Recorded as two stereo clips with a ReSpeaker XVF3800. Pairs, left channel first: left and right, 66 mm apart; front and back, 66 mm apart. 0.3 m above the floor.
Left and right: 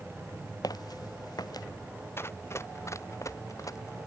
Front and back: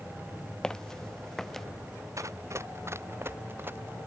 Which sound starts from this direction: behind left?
Running footsteps, at 2.2 s.